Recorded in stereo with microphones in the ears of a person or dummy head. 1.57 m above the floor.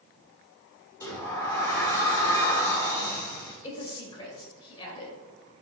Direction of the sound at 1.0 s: 25° left (ahead or behind).